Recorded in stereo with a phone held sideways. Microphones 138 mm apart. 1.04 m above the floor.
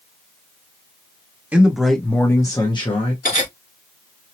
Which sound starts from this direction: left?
Cutlery clinking, at 3.2 s.